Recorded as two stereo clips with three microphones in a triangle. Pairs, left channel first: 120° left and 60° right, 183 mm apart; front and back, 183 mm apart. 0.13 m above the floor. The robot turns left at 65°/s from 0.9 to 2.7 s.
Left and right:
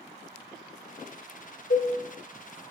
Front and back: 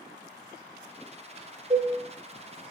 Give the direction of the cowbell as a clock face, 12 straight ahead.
8 o'clock.